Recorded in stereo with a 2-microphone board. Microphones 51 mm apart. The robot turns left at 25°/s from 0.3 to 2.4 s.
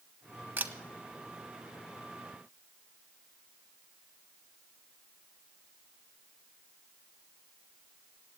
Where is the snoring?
No snoring in this recording.